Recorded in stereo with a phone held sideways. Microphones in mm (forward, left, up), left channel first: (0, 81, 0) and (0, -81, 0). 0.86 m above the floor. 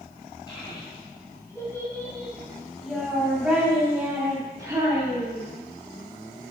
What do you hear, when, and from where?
0.5 s a child speaking: 30° left (ahead or behind), 4 m; by 5.4 s 25° right (ahead or behind), 4 m